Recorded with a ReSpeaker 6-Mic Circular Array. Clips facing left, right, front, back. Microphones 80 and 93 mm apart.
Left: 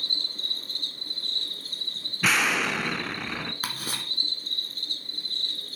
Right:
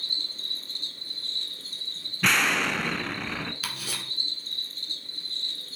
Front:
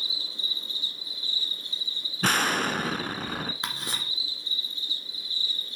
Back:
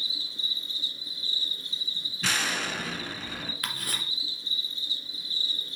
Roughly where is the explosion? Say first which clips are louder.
Even, front 6 dB; ahead.